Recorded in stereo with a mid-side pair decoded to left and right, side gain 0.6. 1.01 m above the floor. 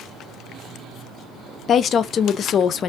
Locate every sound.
1.7 s a woman speaking: 45° left, 0.6 m